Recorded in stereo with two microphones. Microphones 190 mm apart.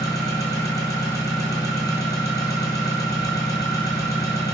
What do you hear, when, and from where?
0.0 s an engine running: 20° left (ahead or behind), 1.0 m